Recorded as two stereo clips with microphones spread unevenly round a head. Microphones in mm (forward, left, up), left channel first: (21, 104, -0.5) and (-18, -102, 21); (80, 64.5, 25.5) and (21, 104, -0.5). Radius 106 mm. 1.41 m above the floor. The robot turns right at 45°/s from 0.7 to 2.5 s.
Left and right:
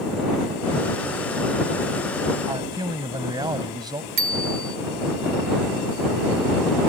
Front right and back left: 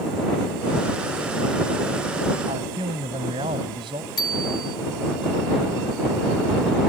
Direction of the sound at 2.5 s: 175° right.